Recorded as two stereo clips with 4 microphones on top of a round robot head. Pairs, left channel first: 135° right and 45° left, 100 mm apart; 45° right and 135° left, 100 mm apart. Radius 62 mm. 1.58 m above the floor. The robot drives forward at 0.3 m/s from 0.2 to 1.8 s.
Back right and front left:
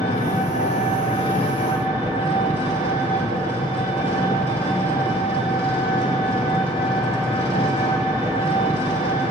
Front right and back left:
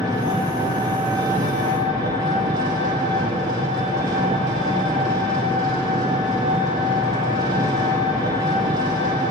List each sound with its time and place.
0.0 s an engine running: 170° right, 1.8 m